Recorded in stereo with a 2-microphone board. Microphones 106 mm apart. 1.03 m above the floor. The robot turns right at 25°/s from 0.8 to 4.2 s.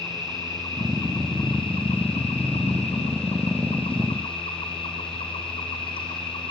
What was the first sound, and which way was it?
An insect, 35° left.